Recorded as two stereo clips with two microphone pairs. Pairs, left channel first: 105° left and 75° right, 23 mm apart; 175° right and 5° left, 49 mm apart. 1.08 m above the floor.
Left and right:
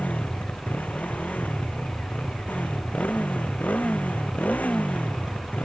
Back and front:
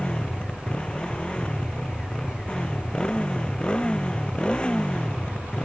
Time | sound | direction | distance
0.0 | a motorcycle | 115° left | ?